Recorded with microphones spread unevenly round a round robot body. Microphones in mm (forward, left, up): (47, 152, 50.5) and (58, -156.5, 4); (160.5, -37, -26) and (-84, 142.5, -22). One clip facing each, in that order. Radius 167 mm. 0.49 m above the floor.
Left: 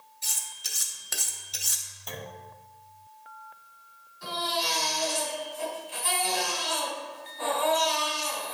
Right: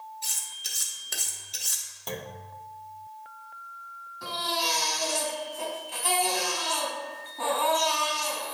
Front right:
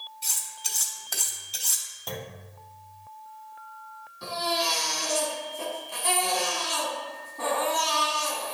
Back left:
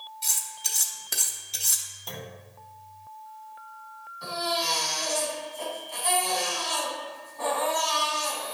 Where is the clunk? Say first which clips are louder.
Right 4 dB, front right 3 dB; 60° right, 0.9 m.